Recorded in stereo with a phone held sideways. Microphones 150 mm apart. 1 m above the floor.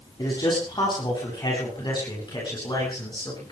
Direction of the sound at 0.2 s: 30° left (ahead or behind).